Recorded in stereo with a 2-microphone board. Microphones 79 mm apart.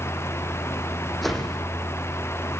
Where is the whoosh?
Centre (ahead or behind), 7 m.